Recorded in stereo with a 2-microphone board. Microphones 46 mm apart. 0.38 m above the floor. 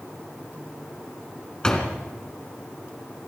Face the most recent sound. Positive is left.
turn(degrees=20)  # may be behind; listen again after turning